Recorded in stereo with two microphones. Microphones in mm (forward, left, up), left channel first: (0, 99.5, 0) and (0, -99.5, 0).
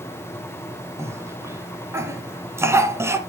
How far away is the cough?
About 1.2 m.